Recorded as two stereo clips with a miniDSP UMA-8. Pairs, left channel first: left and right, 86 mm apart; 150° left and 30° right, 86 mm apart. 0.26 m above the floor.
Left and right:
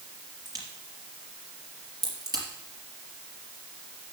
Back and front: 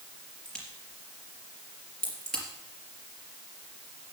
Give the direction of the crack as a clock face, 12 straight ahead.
4 o'clock.